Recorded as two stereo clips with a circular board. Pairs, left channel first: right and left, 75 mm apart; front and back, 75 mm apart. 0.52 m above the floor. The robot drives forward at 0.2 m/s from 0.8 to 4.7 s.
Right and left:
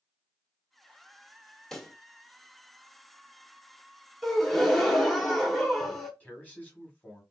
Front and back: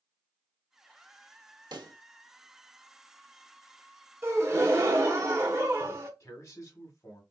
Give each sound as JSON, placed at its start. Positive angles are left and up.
{"t": 1.7, "sound": "a pop", "azimuth_deg": -175, "distance_m": 0.6}
{"t": 4.2, "sound": "a gasp", "azimuth_deg": -175, "distance_m": 0.9}
{"t": 6.2, "sound": "a man speaking", "azimuth_deg": -30, "distance_m": 1.8}